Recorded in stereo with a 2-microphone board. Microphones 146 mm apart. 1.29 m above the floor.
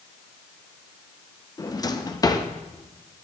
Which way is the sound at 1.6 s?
25° left (ahead or behind).